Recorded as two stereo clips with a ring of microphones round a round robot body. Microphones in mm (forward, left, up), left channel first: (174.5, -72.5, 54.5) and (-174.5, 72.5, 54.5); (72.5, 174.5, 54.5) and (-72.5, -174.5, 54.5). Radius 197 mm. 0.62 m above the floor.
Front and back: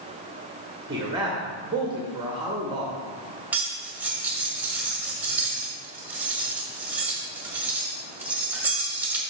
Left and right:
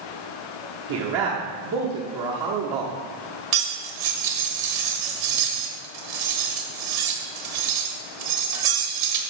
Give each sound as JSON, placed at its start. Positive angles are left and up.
{"t": 0.9, "sound": "a man speaking", "azimuth_deg": -125, "distance_m": 1.4}
{"t": 3.5, "sound": "cutlery clinking", "azimuth_deg": -115, "distance_m": 1.6}